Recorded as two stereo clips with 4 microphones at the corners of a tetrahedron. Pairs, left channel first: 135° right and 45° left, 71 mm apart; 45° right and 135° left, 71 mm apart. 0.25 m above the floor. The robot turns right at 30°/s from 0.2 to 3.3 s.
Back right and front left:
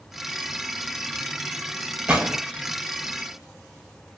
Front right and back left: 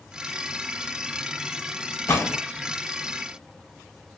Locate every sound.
2.1 s a gunshot: 15° right, 0.8 m; by 2.4 s 5° right, 0.8 m